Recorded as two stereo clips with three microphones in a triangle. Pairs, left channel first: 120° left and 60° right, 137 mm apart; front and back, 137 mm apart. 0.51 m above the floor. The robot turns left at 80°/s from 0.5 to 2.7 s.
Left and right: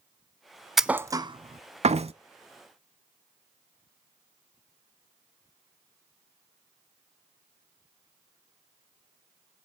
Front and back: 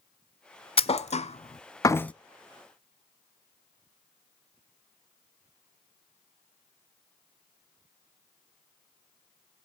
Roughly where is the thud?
Ahead left.